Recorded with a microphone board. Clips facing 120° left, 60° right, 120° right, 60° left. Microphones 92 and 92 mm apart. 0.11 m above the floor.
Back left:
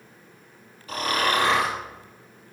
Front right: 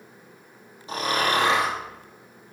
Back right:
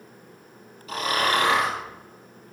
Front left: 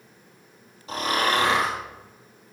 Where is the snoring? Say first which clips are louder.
Even, even; 5° left, 3 m.